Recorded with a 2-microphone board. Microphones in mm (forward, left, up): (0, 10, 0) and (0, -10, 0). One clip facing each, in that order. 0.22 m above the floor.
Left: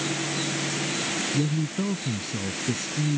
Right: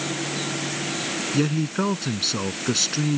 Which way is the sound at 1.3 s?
60° right (ahead or behind).